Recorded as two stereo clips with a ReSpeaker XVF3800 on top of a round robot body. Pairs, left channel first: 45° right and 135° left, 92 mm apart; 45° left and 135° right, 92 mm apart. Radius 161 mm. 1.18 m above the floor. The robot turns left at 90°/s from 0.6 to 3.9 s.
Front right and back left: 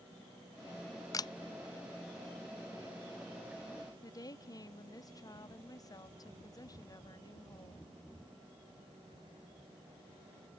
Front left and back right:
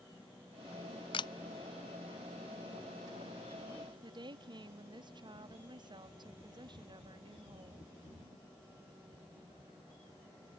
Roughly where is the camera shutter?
Ahead.